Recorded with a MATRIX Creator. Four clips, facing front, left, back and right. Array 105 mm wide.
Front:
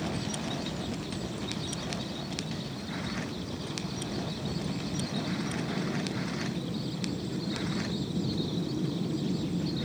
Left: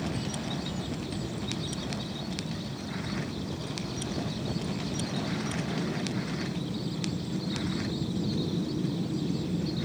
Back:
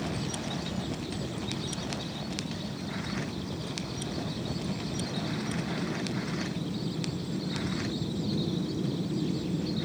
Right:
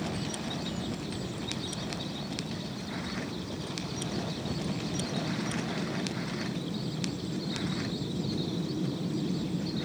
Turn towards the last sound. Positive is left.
No sound to turn to.